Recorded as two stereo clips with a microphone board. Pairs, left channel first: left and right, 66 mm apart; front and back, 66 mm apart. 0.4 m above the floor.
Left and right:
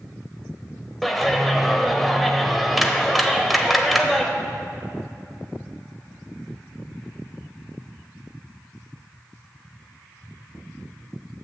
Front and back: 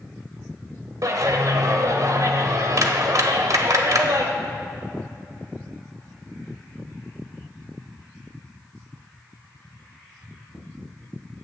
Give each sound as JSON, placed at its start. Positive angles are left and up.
{"t": 1.0, "sound": "a clap", "azimuth_deg": 180, "distance_m": 1.0}